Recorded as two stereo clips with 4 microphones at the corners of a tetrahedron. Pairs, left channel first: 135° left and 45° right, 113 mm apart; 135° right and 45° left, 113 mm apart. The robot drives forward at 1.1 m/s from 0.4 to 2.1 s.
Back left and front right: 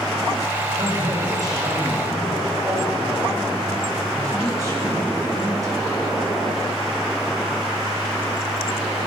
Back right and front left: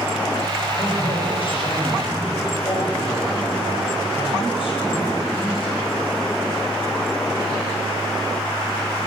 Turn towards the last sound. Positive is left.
turn(degrees=-105)